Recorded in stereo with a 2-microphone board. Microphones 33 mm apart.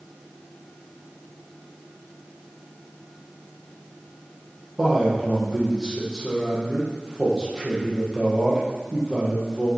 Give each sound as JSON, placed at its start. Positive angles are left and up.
{"t": 4.8, "sound": "a man speaking", "side_deg": -20, "distance_m": 5.0}